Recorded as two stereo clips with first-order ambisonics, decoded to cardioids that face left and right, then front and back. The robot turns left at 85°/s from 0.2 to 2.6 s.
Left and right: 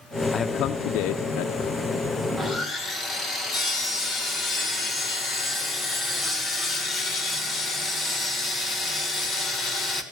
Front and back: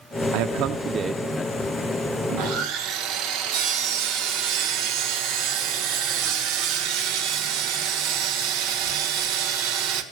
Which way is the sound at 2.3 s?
175° right.